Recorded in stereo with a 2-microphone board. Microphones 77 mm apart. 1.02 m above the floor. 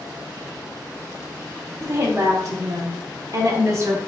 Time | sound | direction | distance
1.8 | a woman speaking | 35° right (ahead or behind) | 1.1 m